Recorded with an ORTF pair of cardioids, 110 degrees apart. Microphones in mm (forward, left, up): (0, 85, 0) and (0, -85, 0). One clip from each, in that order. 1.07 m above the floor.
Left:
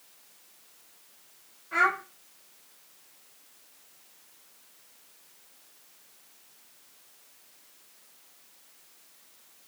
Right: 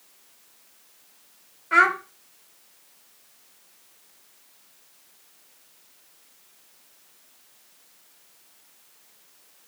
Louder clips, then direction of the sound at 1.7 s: Right 6 dB; 65° right.